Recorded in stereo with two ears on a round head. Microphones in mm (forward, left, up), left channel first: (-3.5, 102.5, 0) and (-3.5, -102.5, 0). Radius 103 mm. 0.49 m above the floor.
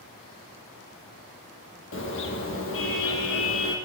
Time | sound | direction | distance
1.9 | a car horn | 55° left (ahead or behind) | 7.5 m